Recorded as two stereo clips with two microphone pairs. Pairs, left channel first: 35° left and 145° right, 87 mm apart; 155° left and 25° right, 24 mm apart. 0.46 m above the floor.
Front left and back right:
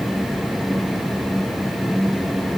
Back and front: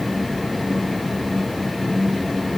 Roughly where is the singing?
No singing in this recording.